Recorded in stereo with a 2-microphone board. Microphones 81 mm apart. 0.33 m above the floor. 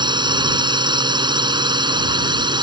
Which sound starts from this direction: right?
A drone, at 0.0 s.